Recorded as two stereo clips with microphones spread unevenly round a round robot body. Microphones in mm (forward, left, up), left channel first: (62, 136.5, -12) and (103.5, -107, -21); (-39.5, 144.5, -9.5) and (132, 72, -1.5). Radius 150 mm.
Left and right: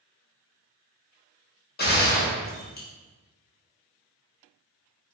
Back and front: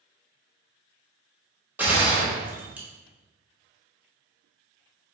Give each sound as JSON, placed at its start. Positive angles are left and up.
{"t": 1.8, "sound": "a gunshot", "azimuth_deg": 55, "distance_m": 1.0}